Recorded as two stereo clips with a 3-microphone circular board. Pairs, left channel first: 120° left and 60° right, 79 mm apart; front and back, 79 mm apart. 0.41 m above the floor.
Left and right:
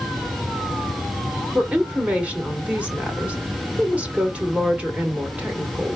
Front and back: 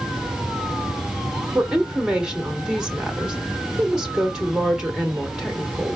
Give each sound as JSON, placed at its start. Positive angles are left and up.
{"t": 1.6, "sound": "a woman speaking", "azimuth_deg": -110, "distance_m": 1.2}